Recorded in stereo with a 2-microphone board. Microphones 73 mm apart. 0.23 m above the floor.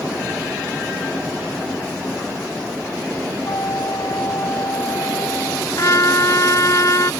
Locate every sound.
3.4 s a flute: 55° left (ahead or behind)
5.8 s a trumpet: 45° left (ahead or behind)